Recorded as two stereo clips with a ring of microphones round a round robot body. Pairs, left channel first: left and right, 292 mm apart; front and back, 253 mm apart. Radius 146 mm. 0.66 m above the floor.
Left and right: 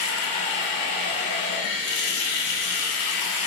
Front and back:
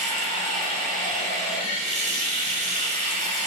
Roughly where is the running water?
Behind left.